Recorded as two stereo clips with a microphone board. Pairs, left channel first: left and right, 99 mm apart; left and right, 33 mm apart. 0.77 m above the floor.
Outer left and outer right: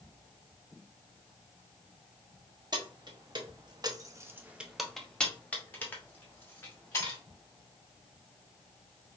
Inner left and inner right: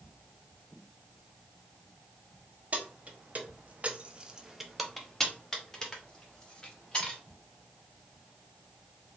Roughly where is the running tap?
I don't hear a running tap.